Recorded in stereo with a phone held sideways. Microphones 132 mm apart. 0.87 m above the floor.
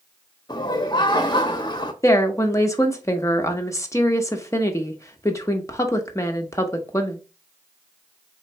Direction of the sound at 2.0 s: 25° left (ahead or behind).